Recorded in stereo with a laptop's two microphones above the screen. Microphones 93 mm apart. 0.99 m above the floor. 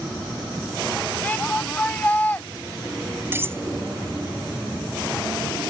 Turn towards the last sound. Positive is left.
turn(degrees=-30)  # may be behind; listen again after turning